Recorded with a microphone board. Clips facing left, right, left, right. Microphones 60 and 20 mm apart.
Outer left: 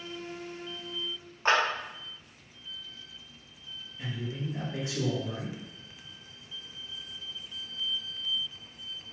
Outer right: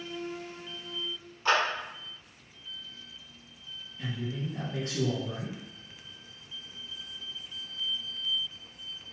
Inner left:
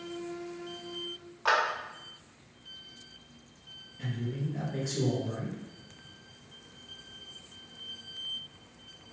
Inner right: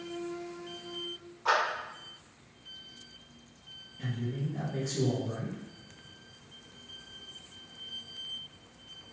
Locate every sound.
1.4 s a clap: 40° left (ahead or behind), 1.8 m
4.0 s a man speaking: 10° left (ahead or behind), 2.0 m